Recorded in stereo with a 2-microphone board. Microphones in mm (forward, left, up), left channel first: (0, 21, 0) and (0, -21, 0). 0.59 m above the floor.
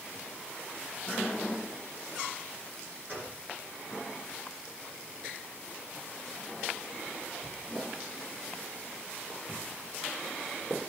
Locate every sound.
3.1 s a gunshot: 40° right (ahead or behind), 9.5 m